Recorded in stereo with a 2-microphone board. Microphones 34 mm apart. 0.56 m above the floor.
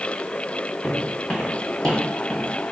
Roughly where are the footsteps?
Left.